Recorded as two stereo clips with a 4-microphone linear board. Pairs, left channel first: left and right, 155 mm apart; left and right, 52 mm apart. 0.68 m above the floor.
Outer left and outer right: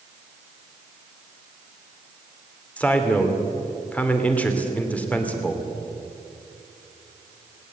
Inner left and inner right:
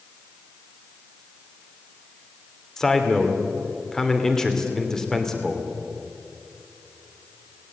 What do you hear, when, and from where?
2.8 s a man speaking: 10° left (ahead or behind), 2.5 m